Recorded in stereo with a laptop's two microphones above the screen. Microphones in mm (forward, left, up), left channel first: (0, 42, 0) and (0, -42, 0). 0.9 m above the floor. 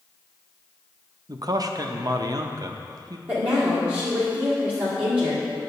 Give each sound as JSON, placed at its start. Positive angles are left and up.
{"t": 1.3, "sound": "a man speaking", "side_deg": -50, "distance_m": 0.6}
{"t": 3.3, "sound": "a woman speaking", "side_deg": -20, "distance_m": 1.9}